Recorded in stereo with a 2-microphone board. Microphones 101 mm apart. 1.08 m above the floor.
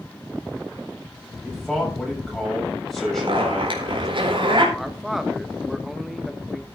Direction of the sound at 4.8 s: Centre (ahead or behind).